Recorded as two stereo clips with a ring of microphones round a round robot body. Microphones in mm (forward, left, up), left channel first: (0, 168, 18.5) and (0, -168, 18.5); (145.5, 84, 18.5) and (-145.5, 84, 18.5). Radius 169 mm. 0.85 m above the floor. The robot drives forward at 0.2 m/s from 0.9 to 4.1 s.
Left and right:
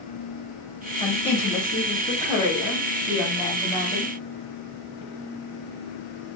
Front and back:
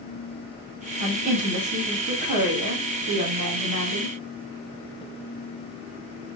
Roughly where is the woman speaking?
Behind.